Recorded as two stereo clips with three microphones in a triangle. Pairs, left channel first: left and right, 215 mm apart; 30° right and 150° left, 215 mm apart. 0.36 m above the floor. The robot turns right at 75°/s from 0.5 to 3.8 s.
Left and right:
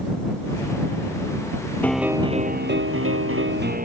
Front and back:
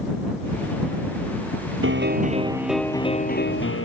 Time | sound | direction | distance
1.8 | a piano | 170° left | ?